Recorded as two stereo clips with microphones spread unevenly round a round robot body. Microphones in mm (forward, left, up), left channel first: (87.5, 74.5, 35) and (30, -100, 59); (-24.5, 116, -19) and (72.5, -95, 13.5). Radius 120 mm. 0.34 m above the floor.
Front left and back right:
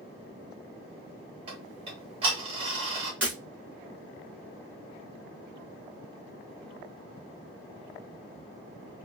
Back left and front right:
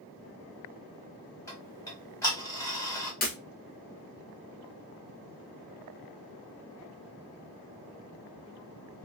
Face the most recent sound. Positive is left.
turn(degrees=170)